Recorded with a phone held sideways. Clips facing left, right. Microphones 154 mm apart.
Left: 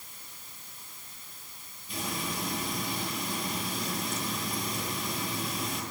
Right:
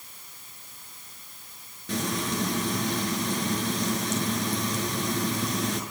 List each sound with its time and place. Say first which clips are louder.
1.9 s frying: right 7 dB; 85° right, 6.5 m